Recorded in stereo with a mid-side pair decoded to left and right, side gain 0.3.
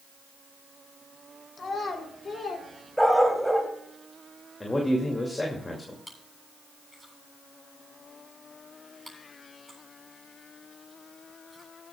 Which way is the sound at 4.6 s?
25° left.